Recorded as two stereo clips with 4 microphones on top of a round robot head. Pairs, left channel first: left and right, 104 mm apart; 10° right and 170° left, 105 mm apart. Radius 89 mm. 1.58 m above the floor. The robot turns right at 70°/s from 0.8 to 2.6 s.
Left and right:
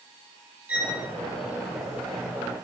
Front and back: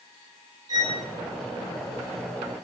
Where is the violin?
150° right, 0.8 m; by 1.0 s 135° right, 0.8 m.